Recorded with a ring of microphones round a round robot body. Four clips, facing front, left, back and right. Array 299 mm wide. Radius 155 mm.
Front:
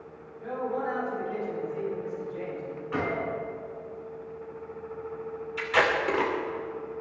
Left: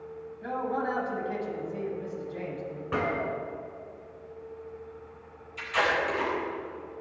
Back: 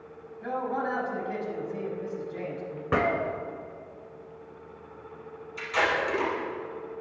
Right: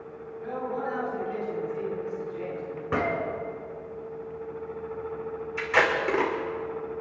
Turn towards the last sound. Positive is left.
turn(degrees=-60)